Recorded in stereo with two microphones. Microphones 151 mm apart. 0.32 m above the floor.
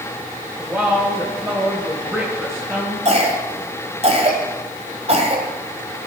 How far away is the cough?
About 2 m.